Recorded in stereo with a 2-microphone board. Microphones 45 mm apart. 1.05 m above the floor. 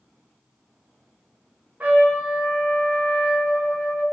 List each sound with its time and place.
1.8 s a trumpet: 35° right (ahead or behind), 0.7 m